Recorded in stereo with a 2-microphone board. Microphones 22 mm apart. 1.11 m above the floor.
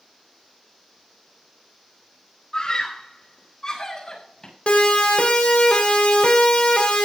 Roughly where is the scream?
Left.